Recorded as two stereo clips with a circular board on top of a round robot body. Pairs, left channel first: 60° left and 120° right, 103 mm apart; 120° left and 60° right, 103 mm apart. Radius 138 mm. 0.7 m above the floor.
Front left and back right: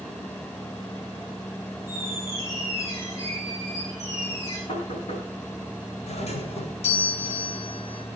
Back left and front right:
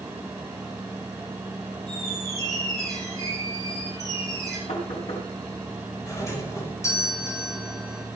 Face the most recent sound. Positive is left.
turn(degrees=60)